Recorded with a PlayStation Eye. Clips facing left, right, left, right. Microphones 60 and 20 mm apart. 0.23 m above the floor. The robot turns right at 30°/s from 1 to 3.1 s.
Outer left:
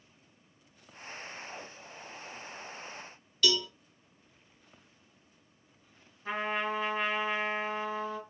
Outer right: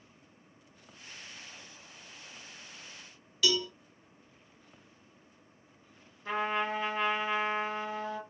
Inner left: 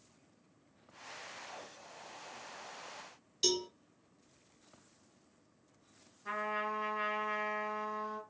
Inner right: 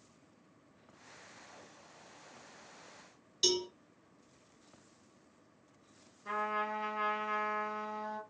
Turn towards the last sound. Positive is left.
turn(degrees=5)  # may be behind; listen again after turning